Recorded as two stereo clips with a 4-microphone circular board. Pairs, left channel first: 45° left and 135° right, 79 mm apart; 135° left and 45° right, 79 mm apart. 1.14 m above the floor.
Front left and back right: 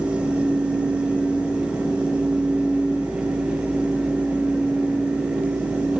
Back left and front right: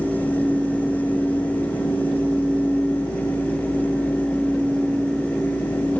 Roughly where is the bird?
I don't hear a bird.